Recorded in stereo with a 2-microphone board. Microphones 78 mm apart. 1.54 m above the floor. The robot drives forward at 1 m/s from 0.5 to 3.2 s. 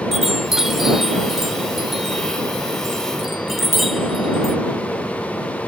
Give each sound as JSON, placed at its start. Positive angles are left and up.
{"t": 0.1, "sound": "a chime", "side_deg": -5}